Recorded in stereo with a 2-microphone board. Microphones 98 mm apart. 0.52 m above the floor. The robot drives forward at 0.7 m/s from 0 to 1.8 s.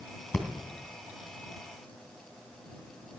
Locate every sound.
0.3 s breathing: 5° left (ahead or behind), 3 m